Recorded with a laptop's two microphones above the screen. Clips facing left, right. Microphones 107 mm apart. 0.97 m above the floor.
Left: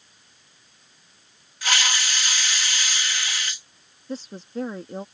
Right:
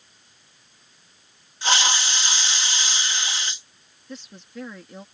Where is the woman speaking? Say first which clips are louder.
Left 7 dB; 35° left (ahead or behind).